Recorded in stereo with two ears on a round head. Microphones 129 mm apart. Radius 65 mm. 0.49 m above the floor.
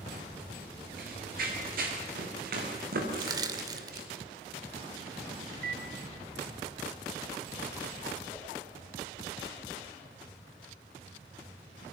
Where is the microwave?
65° right (ahead or behind), 2.5 m.